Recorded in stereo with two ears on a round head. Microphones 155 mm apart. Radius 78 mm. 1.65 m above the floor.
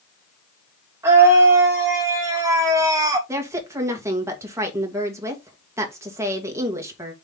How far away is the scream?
About 3.5 m.